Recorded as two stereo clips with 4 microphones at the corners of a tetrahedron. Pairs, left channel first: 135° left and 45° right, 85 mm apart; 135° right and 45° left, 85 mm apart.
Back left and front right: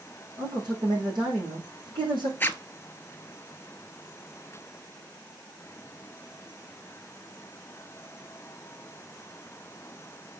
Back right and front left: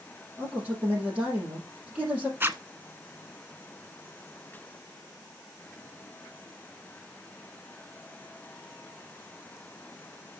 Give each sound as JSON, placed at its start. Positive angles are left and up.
{"t": 0.4, "sound": "a man speaking", "azimuth_deg": -30, "distance_m": 5.5}
{"t": 2.4, "sound": "a zipper", "azimuth_deg": 90, "distance_m": 0.8}